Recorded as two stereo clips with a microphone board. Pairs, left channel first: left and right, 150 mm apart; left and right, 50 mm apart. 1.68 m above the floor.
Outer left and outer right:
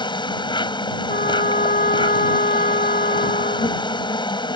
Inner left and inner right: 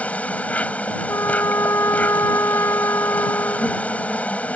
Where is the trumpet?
70° left (ahead or behind).